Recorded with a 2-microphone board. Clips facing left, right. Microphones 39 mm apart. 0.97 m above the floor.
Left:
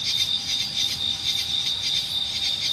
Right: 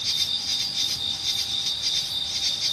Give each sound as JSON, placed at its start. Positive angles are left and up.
{"t": 0.0, "sound": "an insect", "side_deg": 25}